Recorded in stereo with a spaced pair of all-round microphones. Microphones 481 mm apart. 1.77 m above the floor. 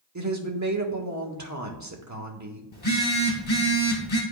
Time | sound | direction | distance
0.1 | a woman speaking | 35° right (ahead or behind) | 1.0 m
2.7 | a phone buzzing | 75° left (ahead or behind) | 1.7 m